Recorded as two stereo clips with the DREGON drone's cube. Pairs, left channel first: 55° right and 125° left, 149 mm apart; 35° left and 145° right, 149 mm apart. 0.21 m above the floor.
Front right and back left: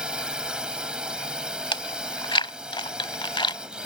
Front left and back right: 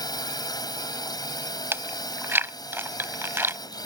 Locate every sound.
0.0 s a drone: 50° left
1.7 s chewing: 80° right